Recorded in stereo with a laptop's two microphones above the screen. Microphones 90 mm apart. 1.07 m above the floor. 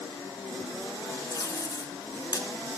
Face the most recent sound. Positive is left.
turn(degrees=40)  # may be behind; listen again after turning